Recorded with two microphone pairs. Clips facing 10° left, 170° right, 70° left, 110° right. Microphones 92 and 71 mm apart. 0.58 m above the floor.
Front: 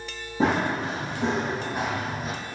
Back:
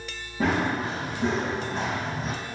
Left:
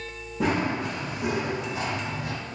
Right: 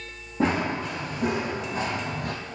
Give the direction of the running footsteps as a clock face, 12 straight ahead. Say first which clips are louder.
Front 1 dB, right 1 dB; 2 o'clock.